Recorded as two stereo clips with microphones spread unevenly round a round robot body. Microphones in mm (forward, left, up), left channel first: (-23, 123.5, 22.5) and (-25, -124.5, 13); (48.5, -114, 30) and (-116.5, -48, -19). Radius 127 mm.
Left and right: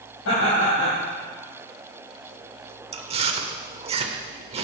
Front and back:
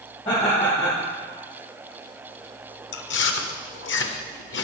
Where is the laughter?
50° left, 3.5 m.